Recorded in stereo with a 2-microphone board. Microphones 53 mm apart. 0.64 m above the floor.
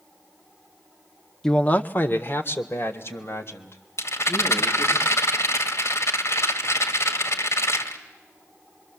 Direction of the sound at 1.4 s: 10° left (ahead or behind).